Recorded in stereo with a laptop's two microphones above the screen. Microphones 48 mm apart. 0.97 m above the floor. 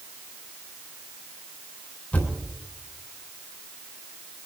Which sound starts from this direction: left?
A thud, at 2.1 s.